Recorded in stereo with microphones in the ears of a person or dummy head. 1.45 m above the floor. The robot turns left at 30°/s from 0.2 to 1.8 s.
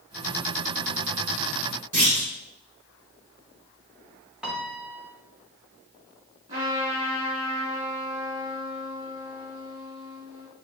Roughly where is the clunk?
Right.